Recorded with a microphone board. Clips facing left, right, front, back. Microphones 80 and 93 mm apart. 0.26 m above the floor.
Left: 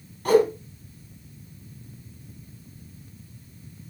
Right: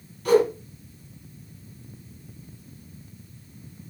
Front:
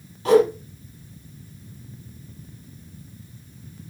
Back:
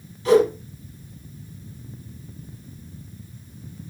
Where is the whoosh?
40° left, 4.5 m.